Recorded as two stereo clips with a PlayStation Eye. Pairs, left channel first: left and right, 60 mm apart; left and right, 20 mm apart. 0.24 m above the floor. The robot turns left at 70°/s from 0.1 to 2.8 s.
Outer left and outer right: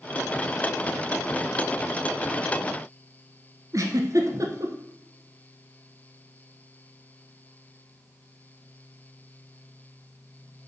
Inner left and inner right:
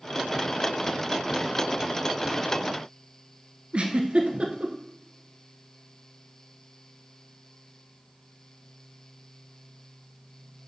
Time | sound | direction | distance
3.7 | a giggle | 60° right (ahead or behind) | 1.0 m